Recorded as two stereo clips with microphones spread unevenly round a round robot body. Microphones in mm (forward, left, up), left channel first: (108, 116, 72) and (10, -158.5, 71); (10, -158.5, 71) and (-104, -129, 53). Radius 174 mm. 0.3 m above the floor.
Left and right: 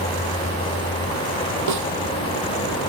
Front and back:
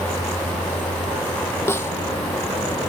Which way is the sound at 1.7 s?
85° right.